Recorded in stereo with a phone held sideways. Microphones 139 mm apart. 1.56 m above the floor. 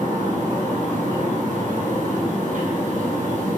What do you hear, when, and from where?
0.0 s a fan: 70° right (ahead or behind), 1.2 m